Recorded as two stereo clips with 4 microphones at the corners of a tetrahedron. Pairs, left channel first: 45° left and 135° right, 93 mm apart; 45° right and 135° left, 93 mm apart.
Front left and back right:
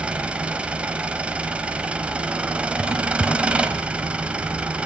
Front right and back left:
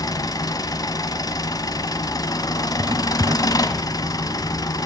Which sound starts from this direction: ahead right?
An engine running, at 0.0 s.